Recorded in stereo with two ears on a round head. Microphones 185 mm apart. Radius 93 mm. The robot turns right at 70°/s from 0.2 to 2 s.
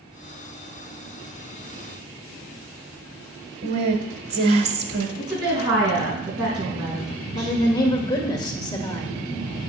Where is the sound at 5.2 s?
20° right (ahead or behind), 5 m.